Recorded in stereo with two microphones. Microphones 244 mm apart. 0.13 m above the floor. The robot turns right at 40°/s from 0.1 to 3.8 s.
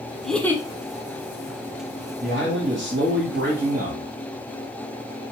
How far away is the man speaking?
About 1.6 m.